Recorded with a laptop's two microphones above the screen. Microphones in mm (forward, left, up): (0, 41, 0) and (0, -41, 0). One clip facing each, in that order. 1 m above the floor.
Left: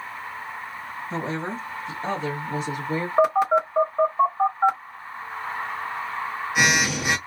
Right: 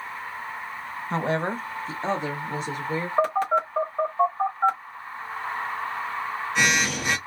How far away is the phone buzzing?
About 0.9 m.